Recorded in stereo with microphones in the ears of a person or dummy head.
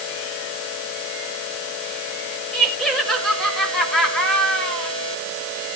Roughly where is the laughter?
Centre.